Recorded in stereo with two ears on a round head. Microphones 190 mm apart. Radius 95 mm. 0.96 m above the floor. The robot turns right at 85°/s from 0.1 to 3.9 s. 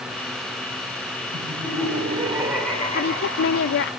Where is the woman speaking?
45° left, 0.5 m; by 3.9 s 125° left, 0.5 m.